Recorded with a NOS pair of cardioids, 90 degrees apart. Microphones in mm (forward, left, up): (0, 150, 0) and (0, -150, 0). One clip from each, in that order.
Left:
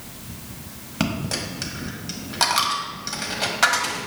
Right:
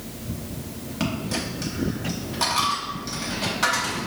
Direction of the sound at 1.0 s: 30° left.